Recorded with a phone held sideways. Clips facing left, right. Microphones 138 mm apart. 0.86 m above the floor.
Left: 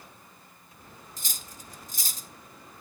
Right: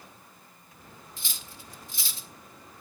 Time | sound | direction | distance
1.2 | cutlery clinking | 45° left (ahead or behind) | 0.7 m